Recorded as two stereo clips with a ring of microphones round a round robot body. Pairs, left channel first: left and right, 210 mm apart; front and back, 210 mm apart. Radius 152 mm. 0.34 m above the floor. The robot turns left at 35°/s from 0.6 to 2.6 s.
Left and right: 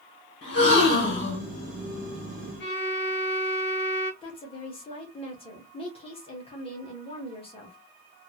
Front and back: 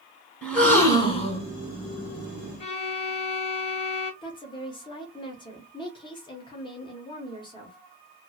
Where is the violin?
60° left, 1.4 m.